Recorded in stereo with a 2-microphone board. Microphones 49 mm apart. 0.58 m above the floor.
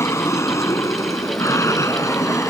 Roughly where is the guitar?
I don't hear a guitar.